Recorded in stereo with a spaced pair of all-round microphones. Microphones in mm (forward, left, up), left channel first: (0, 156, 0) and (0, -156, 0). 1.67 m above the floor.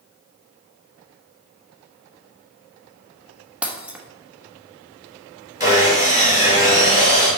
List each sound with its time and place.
3.6 s breaking glass: 5° right (ahead or behind), 1.1 m
5.6 s sawing: 25° left (ahead or behind), 3.5 m